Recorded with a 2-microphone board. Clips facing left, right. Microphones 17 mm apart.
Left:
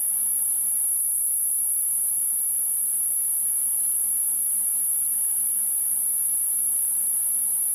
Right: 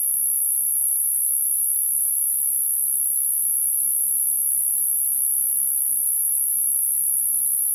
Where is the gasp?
No gasp in this recording.